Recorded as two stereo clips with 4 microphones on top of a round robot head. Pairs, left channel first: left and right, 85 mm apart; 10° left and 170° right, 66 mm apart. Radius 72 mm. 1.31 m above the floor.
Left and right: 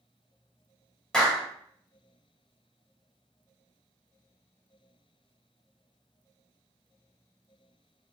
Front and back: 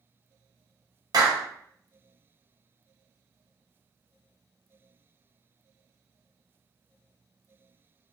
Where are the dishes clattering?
No dishes clattering in this recording.